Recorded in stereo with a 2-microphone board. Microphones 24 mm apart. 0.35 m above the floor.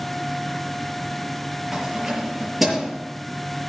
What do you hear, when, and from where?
1.7 s keys jangling: 5° right (ahead or behind), 6 m